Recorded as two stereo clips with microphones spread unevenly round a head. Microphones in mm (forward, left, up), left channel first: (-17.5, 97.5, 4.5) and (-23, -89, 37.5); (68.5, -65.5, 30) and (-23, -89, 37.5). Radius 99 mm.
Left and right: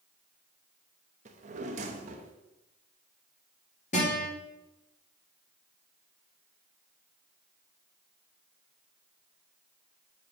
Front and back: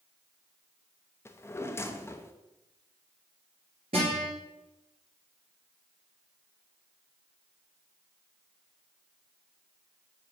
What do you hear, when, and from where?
1.2 s a drawer: 45° right, 0.9 m
3.9 s a guitar: 140° left, 4.5 m